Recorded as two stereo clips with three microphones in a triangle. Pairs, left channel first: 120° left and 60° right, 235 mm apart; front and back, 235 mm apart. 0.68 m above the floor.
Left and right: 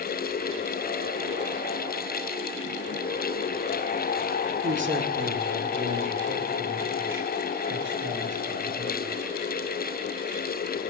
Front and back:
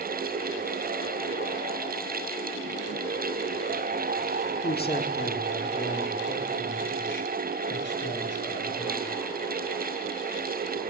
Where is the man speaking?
40° right, 1.4 m; by 9.2 s 30° right, 4 m.